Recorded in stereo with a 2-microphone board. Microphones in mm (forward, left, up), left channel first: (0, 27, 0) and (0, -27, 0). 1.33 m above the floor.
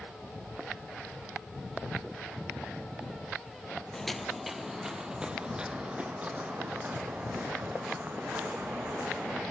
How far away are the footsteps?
About 1.6 m.